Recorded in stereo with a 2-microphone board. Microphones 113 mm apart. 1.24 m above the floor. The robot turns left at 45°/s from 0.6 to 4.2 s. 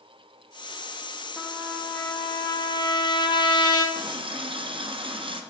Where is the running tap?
40° right (ahead or behind), 0.6 m; by 5.4 s 50° right (ahead or behind), 0.6 m.